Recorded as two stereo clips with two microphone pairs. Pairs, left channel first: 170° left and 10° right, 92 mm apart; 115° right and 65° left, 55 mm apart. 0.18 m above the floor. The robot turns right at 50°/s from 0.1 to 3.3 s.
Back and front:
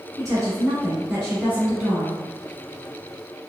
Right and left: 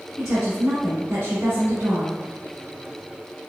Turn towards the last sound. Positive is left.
turn(degrees=145)